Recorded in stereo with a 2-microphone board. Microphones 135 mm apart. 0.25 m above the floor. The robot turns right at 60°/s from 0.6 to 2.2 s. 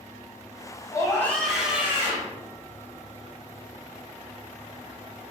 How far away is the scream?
About 1.5 m.